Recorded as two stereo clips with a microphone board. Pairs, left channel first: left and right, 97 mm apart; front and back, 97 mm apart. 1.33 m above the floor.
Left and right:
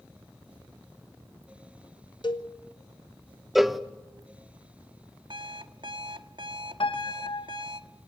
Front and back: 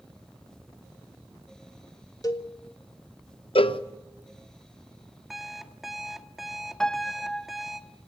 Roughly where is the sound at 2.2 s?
Ahead left.